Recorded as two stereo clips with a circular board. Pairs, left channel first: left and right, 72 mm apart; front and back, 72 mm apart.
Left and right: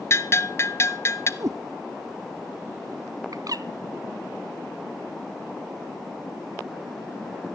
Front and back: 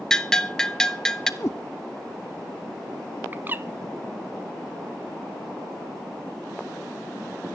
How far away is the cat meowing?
About 1.4 m.